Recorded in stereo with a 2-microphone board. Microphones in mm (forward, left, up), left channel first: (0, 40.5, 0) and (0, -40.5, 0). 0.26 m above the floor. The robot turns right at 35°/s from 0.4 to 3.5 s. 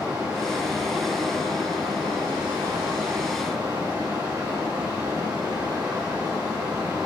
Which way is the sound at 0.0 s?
145° right.